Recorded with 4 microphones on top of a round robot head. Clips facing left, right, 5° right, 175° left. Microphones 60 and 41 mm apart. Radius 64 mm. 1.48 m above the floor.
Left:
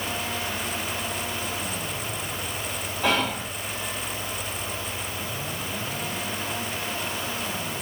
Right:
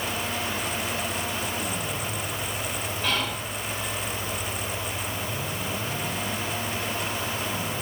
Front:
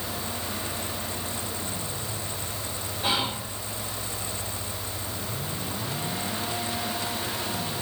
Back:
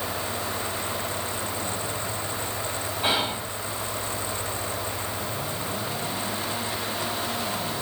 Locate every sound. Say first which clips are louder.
3.0 s whispering: left 5 dB, back 1 dB; 110° left, 1.2 m